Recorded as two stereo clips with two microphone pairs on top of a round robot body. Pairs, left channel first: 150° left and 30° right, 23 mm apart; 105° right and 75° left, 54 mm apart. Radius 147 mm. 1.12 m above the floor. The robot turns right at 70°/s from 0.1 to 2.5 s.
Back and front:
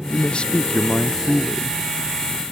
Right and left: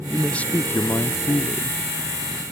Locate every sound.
0.1 s a man speaking: 165° left, 0.9 m; by 1.8 s 75° right, 0.9 m